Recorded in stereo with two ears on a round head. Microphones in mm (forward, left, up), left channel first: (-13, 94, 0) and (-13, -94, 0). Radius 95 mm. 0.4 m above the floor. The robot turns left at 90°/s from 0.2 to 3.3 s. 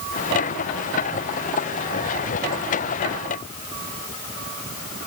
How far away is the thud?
I don't hear a thud.